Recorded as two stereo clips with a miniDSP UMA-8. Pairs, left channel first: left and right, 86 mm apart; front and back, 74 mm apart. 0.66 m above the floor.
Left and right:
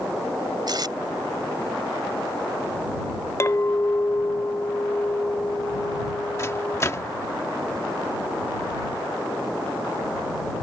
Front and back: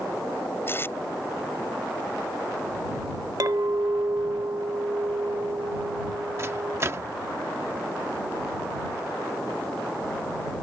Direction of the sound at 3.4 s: 145° left.